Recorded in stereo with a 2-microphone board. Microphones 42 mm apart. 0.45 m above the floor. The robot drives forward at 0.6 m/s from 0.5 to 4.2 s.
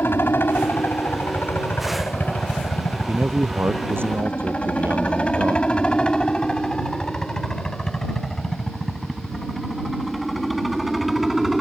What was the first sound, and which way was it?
A helicopter, 60° left (ahead or behind).